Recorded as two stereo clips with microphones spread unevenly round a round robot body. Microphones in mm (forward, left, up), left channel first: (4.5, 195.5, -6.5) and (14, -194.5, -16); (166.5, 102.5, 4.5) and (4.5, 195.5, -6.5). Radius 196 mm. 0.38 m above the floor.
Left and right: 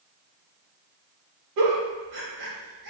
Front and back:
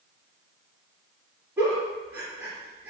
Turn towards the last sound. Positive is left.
turn(degrees=-125)